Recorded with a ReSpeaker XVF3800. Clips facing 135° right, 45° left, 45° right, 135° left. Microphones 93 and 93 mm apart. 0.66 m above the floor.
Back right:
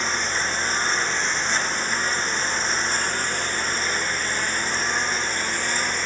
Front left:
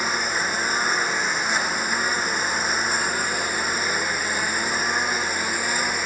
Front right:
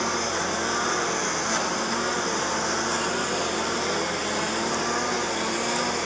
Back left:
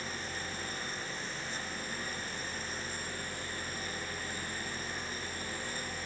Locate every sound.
0.0 s a lawn mower: 35° right